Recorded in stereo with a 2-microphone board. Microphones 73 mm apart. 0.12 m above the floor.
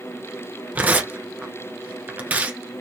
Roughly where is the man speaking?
I don't hear a man speaking.